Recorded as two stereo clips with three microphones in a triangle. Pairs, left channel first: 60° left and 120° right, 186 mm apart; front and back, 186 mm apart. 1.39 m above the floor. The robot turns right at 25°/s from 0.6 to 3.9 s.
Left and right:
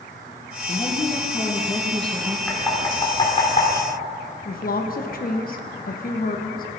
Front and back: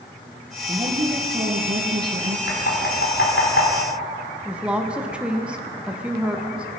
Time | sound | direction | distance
0.7 | a woman speaking | 115° left | 1.7 m
2.5 | knocking | 20° right | 3.5 m
4.5 | a woman speaking | 95° left | 1.1 m